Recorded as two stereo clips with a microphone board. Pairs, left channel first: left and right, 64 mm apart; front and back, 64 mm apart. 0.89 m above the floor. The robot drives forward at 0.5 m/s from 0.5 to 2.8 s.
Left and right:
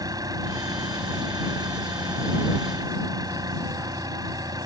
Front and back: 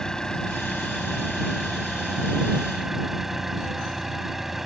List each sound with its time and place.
0.0 s an engine running: 80° right; by 4.7 s 95° right